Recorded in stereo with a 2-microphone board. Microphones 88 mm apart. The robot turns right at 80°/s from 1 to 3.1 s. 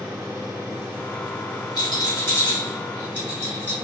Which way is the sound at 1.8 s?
55° left (ahead or behind).